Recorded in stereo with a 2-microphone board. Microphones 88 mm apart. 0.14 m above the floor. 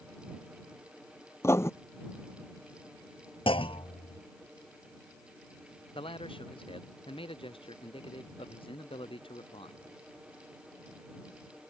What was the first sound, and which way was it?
Writing, 30° left (ahead or behind).